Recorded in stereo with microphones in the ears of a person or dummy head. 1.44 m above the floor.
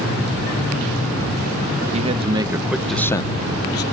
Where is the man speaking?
35° right (ahead or behind); by 3.8 s 55° left (ahead or behind).